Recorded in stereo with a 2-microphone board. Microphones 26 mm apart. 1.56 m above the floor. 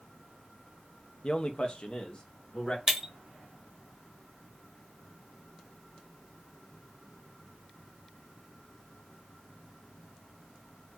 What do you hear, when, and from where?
1.2 s a man speaking: 45° left (ahead or behind), 0.8 m
2.9 s breaking glass: 20° right (ahead or behind), 1.1 m